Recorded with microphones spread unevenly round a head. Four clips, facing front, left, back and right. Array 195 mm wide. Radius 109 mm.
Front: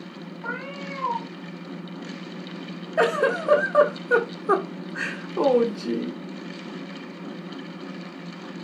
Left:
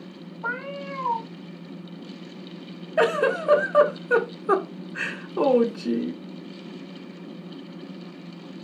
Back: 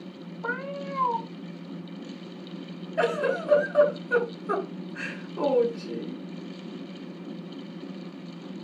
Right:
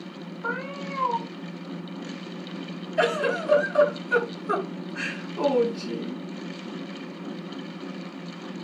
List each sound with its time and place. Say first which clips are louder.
0.4 s a cat meowing: left 1 dB, back 2 dB; 130° left, 4 m
3.0 s a giggle: left 3 dB, front 4 dB; 45° left, 1.5 m